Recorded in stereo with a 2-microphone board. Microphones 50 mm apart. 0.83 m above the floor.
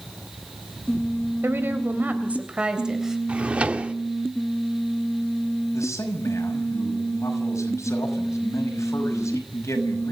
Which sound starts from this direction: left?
A man speaking, at 5.7 s.